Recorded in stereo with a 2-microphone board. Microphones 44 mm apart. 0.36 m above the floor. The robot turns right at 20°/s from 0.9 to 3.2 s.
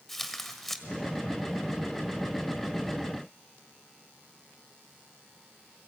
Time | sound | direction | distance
0.1 | tearing paper | 5° left (ahead or behind) | 1.6 m